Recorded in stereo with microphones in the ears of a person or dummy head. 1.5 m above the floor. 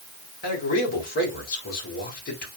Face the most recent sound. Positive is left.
turn(degrees=50)  # may be behind; listen again after turning